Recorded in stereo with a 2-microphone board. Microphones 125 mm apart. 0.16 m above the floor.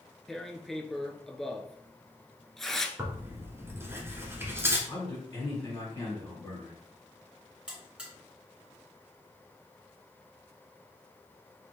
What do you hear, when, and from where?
0.3 s tearing paper: centre (ahead or behind), 0.5 m
3.0 s tearing paper: 20° right (ahead or behind), 1.5 m
4.9 s a man speaking: 35° left (ahead or behind), 2 m
7.7 s a buzzer: 10° right (ahead or behind), 1.7 m